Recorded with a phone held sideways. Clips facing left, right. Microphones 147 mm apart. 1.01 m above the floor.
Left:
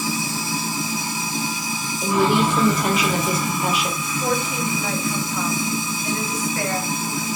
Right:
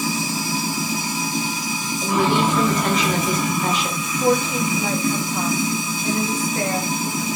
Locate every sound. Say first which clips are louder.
0.0 s running water: right 2 dB; 75° right (ahead or behind), 1.1 m
2.0 s a woman speaking: left 1 dB; 10° left (ahead or behind), 0.7 m
4.1 s a woman speaking: right 7 dB; 30° right (ahead or behind), 0.8 m